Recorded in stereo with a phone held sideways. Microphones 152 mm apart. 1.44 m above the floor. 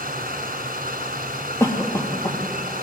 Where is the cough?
20° left (ahead or behind), 2 m.